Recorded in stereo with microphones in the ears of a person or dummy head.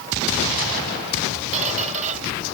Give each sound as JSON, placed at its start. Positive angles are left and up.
{"t": 1.5, "sound": "a squeak", "side_deg": -40}